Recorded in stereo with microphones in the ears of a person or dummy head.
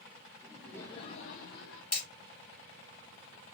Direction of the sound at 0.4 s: 15° right (ahead or behind).